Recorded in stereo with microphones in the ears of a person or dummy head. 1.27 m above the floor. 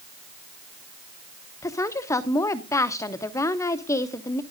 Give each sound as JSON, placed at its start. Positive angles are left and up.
{"t": 1.6, "sound": "a woman speaking", "side_deg": 20, "distance_m": 0.9}